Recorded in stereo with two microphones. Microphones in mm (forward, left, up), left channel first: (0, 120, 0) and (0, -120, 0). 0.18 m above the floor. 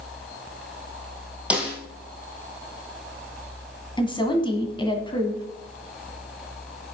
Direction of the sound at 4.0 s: 20° left (ahead or behind).